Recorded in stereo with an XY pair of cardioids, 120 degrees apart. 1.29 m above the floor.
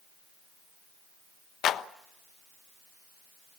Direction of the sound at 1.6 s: 55° left.